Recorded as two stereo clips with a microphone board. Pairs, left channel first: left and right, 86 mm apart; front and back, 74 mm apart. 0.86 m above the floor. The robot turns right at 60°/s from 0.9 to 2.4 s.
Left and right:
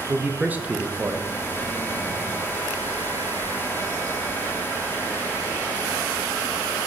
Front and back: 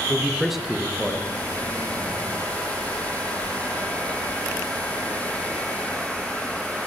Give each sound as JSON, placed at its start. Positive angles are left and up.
{"t": 0.1, "sound": "a man speaking", "azimuth_deg": -95, "distance_m": 0.7}